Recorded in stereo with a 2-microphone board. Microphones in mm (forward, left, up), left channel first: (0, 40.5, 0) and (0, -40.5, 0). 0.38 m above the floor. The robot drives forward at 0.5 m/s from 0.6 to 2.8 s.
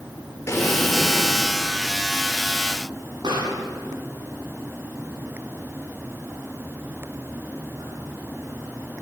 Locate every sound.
0.5 s an explosion: 30° left (ahead or behind), 5 m; by 1.4 s 35° left (ahead or behind), 4.5 m
3.2 s a pop: 70° right (ahead or behind), 9.5 m